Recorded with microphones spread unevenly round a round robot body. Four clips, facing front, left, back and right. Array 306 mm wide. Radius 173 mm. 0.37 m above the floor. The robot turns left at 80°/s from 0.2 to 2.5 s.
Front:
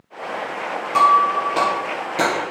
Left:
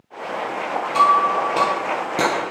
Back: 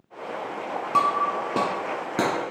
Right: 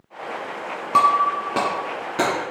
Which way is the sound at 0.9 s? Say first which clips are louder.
Left 1 dB, front 8 dB; 105° right.